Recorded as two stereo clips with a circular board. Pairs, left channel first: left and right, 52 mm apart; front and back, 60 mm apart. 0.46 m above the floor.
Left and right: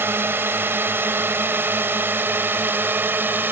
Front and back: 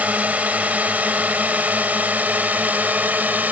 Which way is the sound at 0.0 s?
120° right.